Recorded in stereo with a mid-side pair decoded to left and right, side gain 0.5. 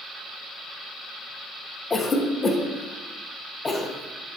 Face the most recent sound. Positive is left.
turn(degrees=25)